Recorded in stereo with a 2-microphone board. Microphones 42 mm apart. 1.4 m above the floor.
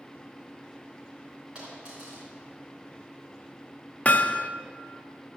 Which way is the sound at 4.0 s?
35° left (ahead or behind).